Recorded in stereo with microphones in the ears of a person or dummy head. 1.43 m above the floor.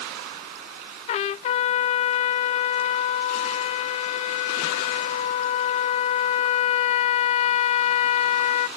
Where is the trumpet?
40° left (ahead or behind), 0.8 m.